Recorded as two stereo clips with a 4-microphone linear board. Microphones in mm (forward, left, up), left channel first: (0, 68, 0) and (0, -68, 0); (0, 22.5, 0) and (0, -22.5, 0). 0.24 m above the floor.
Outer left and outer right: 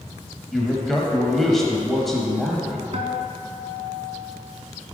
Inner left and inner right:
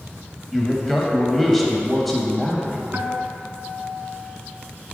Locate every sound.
0.5 s a man speaking: centre (ahead or behind), 0.9 m
2.9 s a guitar: 55° right (ahead or behind), 0.7 m